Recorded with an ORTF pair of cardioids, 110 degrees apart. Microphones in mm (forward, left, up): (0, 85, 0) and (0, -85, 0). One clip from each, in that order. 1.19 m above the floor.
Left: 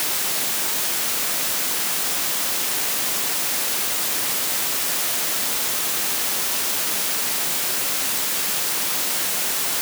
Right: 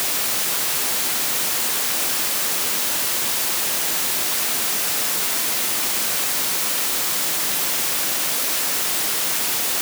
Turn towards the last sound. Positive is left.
No sound to turn to.